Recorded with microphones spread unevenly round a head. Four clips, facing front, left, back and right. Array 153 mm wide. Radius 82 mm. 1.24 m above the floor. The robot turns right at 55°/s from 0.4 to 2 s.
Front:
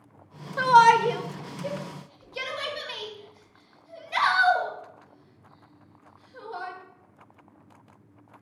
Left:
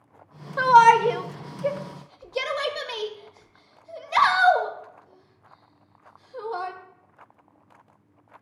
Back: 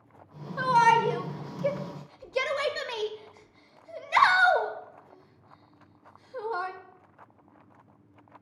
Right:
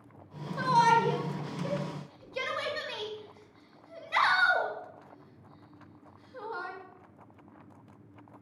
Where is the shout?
35° left, 2 m; by 6.7 s 110° left, 2 m.